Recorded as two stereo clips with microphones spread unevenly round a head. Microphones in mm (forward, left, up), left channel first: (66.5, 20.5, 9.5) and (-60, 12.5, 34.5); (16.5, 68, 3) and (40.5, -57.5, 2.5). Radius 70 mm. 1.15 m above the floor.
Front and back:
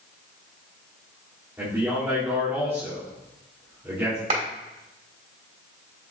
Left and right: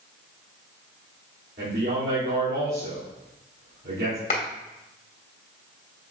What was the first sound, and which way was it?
A man speaking, 100° right.